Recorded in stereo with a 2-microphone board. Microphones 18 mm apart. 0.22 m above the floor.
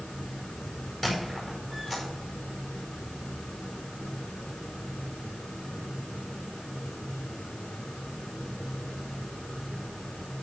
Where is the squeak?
15° left (ahead or behind), 5.5 m.